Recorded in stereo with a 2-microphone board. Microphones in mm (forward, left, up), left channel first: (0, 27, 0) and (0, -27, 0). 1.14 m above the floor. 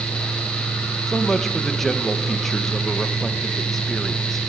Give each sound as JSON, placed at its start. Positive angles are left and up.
{"t": 1.1, "sound": "a man speaking", "side_deg": 5, "distance_m": 1.1}